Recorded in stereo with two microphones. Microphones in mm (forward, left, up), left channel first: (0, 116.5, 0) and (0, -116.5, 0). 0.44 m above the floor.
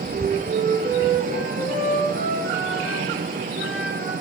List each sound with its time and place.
0.1 s a flute: 65° right (ahead or behind), 6.5 m